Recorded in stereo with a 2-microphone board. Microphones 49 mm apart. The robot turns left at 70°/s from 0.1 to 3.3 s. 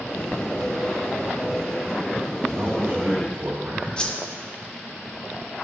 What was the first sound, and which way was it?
A man speaking, 40° right.